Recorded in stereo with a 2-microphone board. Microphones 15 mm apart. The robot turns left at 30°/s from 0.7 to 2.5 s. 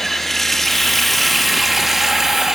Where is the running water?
20° left, 2 m; by 2.6 s 35° right, 2 m.